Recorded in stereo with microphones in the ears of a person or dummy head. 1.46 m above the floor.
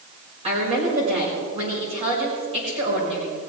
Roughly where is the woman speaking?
Right.